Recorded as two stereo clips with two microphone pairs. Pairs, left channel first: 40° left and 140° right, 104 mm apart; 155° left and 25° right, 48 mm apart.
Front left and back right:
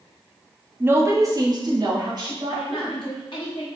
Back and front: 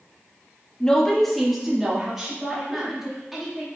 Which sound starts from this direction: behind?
A woman speaking, at 0.8 s.